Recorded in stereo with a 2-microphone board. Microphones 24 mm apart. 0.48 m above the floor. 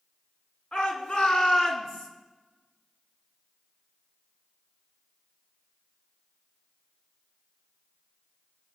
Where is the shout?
35° left (ahead or behind), 4.5 m; by 2.1 s 25° left (ahead or behind), 4.5 m.